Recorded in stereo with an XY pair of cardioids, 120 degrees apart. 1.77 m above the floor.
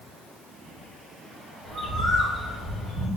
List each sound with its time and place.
1.6 s a bird: 30° left, 1.9 m